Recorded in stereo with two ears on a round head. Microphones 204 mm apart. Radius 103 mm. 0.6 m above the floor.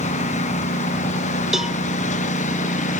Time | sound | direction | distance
0.0 | a lawn mower | 30° left (ahead or behind) | ?
1.5 | a cowbell | centre (ahead or behind) | ?